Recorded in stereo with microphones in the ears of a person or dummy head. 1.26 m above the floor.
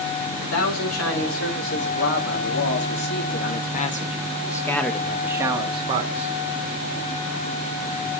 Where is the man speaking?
80° left, 3.5 m; by 6.3 s 40° right (ahead or behind), 1.8 m.